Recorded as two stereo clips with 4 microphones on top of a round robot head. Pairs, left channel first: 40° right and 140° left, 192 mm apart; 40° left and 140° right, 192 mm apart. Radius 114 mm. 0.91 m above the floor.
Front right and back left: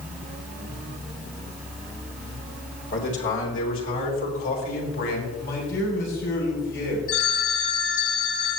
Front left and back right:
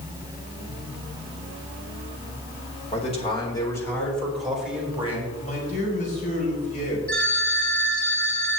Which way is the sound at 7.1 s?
45° right.